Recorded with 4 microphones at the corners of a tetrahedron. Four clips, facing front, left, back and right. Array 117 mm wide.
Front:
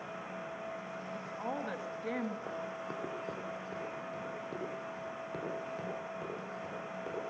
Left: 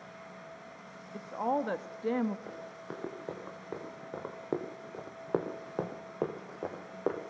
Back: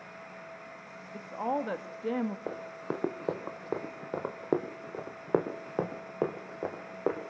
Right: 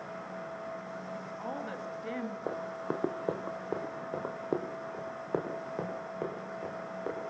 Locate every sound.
1.1 s a woman speaking: 130° left, 1.7 m
2.5 s running footsteps: 130° right, 2.5 m; by 7.2 s 150° left, 3.5 m